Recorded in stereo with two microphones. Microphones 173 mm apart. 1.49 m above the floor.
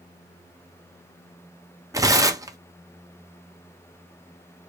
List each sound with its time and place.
1.9 s tearing paper: 20° right (ahead or behind), 0.6 m